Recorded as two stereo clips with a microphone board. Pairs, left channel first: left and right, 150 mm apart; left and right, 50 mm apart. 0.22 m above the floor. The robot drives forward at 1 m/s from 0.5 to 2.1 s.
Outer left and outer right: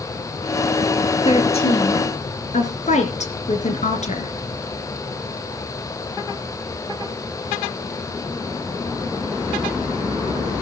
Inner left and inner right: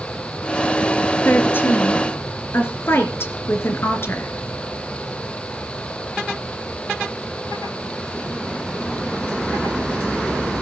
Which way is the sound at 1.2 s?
40° left (ahead or behind).